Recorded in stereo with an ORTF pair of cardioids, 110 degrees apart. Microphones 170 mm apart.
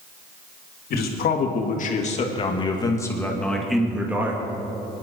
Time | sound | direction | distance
0.9 | a man speaking | 65° left | 3 m